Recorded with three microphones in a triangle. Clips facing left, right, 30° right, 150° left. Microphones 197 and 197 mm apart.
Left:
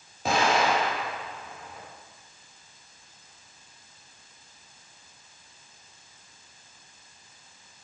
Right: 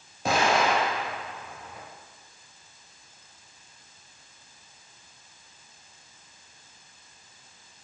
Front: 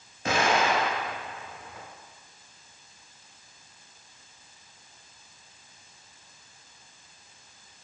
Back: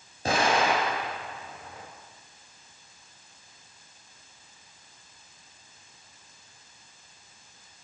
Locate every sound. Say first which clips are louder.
0.2 s an explosion: even, even; straight behind, 1.9 m